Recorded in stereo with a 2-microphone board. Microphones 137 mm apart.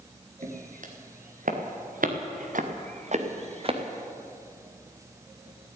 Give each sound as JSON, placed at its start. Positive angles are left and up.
{"t": 0.4, "sound": "footsteps", "side_deg": -70, "distance_m": 3.5}